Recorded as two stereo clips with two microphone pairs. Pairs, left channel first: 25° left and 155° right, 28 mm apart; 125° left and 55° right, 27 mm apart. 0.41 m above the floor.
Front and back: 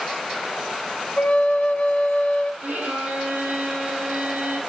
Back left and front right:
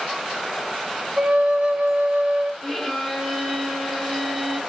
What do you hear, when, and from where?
1.2 s a flute: 10° right, 0.8 m
2.6 s a violin: 145° right, 2 m